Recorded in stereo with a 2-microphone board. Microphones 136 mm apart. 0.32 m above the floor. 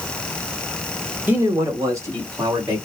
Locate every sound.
1.3 s a man speaking: 15° right (ahead or behind), 1.2 m; by 2.8 s 35° right (ahead or behind), 2.5 m